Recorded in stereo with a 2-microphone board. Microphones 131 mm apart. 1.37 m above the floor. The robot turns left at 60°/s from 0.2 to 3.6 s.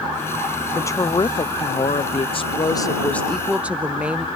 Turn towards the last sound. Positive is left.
turn(degrees=-15)